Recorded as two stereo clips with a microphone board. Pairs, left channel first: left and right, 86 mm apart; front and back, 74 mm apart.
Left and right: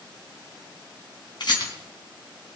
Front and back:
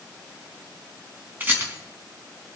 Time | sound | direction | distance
1.4 | a rattle | 115° left | 4 m